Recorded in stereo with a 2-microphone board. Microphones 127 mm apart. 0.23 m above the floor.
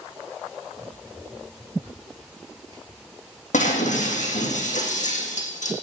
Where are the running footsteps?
25° right (ahead or behind), 6 m; by 3.4 s 40° right (ahead or behind), 3.5 m.